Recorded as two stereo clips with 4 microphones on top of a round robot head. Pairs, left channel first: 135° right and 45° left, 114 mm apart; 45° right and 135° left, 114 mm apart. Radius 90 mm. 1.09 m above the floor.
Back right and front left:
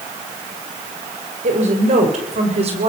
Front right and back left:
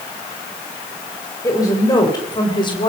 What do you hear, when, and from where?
1.4 s a woman speaking: 20° left, 5 m; by 2.9 s 5° left, 4.5 m